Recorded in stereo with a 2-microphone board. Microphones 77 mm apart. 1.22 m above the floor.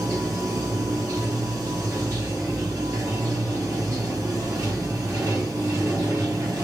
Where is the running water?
40° right (ahead or behind), 2.5 m.